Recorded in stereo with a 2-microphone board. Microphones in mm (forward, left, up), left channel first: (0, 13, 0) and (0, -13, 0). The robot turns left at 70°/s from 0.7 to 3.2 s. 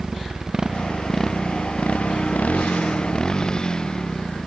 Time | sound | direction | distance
0.0 | a motorcycle | 15° right (ahead or behind) | ?